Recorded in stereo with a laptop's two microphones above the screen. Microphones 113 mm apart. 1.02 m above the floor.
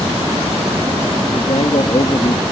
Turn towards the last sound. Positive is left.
turn(degrees=60)  # may be behind; listen again after turning